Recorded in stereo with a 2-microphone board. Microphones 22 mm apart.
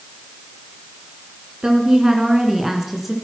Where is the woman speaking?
45° right (ahead or behind), 2 m; by 3.1 s 10° right (ahead or behind), 2.5 m.